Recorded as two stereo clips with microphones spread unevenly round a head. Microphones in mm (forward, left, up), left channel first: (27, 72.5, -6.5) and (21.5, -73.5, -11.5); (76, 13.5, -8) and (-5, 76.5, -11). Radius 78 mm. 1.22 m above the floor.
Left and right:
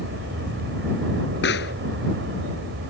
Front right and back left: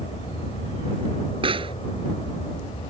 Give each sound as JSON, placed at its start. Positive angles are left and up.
{"t": 0.0, "sound": "an aircraft", "azimuth_deg": -95}
{"t": 1.4, "sound": "a pop", "azimuth_deg": 110}